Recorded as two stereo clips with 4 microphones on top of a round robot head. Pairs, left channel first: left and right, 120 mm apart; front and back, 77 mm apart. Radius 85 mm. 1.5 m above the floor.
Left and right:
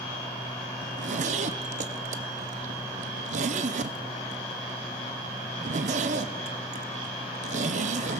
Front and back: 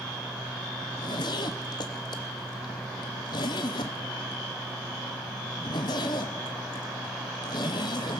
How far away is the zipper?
About 0.6 m.